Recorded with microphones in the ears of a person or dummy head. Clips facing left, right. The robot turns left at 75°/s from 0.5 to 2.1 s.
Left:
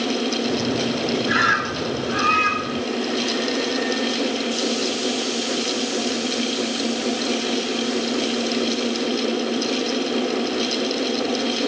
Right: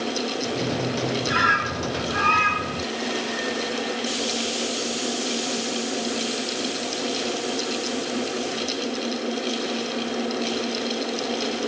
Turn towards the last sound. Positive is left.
turn(degrees=85)